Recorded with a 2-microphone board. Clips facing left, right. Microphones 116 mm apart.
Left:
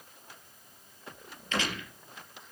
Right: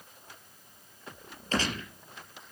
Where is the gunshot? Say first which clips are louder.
Right 2 dB; 35° right (ahead or behind), 5 m.